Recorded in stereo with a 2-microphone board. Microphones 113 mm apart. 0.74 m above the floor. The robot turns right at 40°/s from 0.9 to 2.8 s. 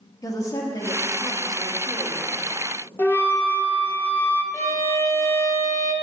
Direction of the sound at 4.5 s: 25° left (ahead or behind).